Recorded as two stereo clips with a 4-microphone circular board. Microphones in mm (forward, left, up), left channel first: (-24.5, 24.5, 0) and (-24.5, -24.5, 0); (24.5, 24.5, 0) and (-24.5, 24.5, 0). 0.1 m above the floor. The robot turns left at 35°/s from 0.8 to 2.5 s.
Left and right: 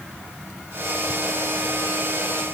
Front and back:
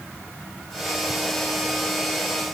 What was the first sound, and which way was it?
Only background noise.